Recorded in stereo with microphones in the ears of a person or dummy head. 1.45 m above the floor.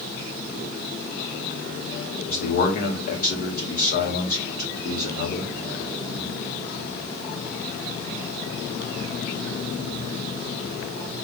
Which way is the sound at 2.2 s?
50° left (ahead or behind).